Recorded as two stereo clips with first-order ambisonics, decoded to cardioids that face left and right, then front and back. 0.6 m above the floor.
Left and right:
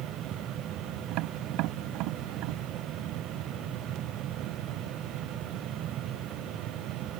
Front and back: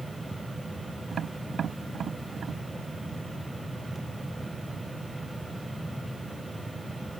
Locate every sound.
1.1 s tapping: 115° right